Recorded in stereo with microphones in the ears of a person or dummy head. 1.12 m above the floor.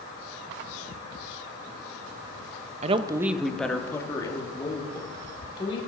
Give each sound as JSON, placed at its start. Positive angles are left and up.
{"t": 2.8, "sound": "a woman speaking", "side_deg": -40, "distance_m": 0.7}